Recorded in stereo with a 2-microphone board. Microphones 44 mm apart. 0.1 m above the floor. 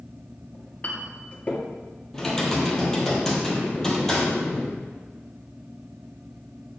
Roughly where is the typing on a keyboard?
Centre.